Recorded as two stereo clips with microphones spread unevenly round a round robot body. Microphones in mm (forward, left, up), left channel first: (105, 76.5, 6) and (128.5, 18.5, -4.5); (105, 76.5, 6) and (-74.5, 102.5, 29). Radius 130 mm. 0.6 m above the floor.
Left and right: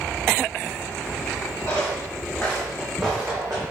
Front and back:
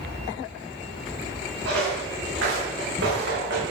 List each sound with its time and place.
1.6 s footsteps: straight behind, 3 m; by 3.6 s 145° right, 2.5 m